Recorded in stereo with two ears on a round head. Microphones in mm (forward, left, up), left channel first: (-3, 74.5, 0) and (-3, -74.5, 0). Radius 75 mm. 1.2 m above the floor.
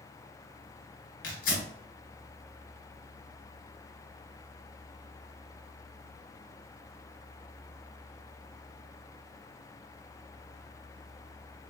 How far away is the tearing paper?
About 2.5 m.